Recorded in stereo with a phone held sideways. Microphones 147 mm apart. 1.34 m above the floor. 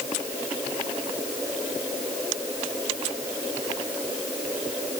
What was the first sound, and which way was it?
Only background noise.